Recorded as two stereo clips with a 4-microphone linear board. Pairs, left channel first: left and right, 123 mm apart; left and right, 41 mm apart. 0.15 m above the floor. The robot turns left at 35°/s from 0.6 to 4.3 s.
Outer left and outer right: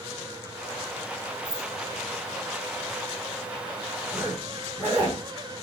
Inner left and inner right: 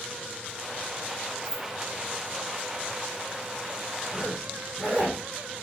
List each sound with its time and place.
1.4 s keys jangling: 25° left (ahead or behind), 1.4 m; by 1.7 s 15° left (ahead or behind), 1.4 m
4.1 s a zipper: 25° right (ahead or behind), 4 m; by 5.2 s 20° right (ahead or behind), 4 m